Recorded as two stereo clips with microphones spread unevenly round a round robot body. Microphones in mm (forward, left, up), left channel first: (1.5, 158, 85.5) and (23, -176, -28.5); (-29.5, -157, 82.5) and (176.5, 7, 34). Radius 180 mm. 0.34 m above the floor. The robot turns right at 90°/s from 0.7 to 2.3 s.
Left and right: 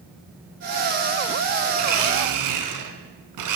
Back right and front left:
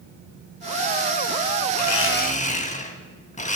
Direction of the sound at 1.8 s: 120° right.